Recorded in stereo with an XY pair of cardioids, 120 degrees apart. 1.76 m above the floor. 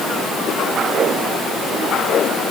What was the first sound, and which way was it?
Only background noise.